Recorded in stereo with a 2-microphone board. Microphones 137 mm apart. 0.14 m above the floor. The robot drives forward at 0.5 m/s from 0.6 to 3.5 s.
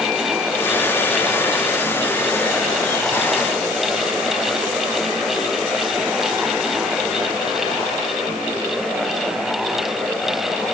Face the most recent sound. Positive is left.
No sound to turn to.